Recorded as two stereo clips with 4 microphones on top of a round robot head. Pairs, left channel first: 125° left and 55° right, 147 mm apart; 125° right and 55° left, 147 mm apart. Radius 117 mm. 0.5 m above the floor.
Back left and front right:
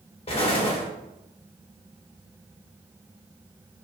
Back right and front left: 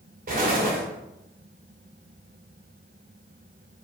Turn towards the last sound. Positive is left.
turn(degrees=75)